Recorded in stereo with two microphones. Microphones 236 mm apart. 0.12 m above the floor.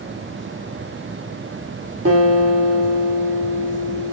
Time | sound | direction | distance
2.0 | a guitar | 65° right (ahead or behind) | 9 m